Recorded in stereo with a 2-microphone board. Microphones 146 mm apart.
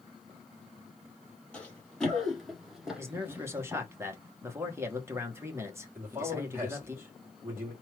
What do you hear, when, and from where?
1.5 s running footsteps: 10° left (ahead or behind), 2 m; by 3.8 s 15° right (ahead or behind), 1.4 m
3.0 s a man speaking: 15° right (ahead or behind), 1.4 m
6.0 s a man speaking: 15° right (ahead or behind), 2.5 m